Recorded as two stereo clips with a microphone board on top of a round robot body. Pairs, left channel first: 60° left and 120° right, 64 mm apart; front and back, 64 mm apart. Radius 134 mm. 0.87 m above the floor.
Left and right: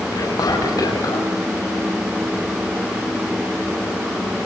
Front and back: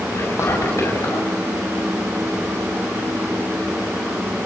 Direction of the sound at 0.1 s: 45° left.